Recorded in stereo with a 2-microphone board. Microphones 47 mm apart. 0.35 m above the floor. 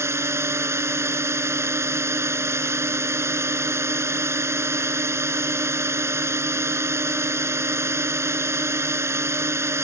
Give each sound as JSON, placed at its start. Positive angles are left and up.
{"t": 0.0, "sound": "a drone", "side_deg": -75}